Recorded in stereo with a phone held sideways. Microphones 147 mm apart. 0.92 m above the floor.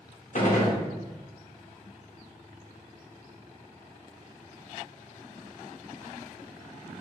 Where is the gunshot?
55° left (ahead or behind), 0.9 m.